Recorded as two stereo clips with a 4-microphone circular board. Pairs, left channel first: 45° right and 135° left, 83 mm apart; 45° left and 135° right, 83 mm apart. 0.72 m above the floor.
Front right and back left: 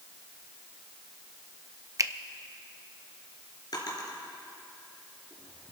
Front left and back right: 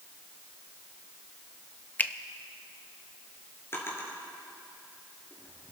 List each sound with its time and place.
2.0 s a finger snap: 110° left, 0.6 m
3.7 s a drawer: 10° right, 3.5 m